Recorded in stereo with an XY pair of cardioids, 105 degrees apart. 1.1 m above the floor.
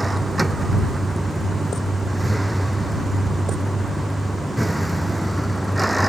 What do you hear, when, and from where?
0.0 s a vehicle: 15° right; by 6.1 s 5° right